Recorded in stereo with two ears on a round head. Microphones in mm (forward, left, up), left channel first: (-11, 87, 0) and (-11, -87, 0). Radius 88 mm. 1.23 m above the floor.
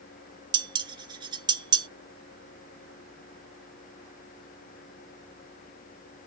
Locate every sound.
0.5 s dishes clattering: 25° right (ahead or behind)